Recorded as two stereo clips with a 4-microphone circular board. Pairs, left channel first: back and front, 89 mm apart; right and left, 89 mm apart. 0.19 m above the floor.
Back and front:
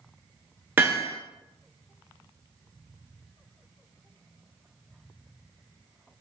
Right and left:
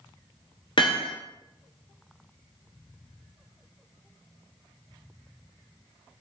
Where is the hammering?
65° right, 0.8 m.